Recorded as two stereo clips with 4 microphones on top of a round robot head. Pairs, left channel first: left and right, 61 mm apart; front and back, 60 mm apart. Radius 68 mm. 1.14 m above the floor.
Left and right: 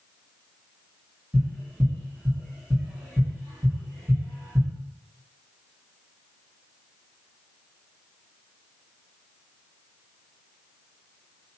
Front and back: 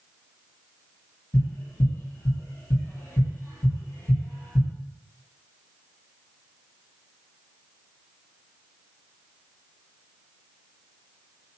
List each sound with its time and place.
1.3 s tapping: 20° right, 2.5 m